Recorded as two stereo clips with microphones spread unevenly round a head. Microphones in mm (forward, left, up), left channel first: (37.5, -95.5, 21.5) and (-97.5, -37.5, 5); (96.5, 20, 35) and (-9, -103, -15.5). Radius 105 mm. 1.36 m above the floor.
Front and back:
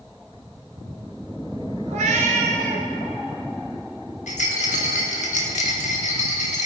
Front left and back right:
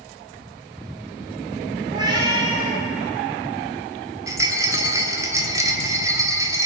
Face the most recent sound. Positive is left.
turn(degrees=-50)